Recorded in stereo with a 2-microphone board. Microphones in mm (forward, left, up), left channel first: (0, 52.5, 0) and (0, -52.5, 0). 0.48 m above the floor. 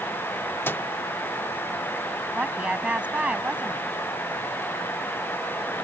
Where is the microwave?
20° left (ahead or behind).